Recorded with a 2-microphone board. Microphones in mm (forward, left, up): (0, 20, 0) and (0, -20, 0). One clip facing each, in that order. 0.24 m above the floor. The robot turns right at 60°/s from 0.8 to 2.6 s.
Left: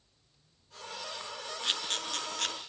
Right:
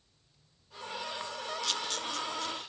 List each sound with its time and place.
1.6 s a camera shutter: 30° left (ahead or behind), 3.5 m; by 2.5 s 65° left (ahead or behind), 3.5 m